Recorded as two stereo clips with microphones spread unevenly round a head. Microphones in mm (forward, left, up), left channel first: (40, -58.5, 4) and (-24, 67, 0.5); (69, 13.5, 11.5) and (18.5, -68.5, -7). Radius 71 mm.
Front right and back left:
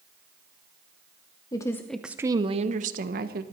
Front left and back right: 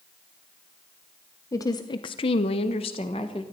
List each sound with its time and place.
1.5 s a woman speaking: straight ahead, 1.0 m; by 3.4 s 115° left, 1.5 m